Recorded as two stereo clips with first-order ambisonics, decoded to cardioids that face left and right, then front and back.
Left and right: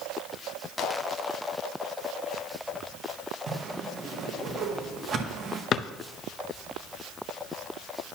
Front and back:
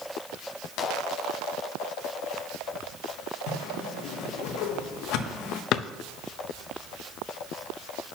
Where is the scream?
I don't hear a scream.